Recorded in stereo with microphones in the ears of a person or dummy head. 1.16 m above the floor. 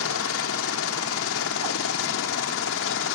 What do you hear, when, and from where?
0.0 s a helicopter: 70° left (ahead or behind); by 3.1 s 65° left (ahead or behind)